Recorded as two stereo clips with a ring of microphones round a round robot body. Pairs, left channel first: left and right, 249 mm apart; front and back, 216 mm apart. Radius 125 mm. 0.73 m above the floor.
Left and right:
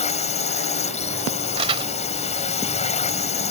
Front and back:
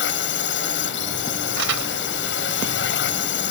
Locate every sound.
0.0 s a drone: 25° left
1.6 s crumpling: 160° right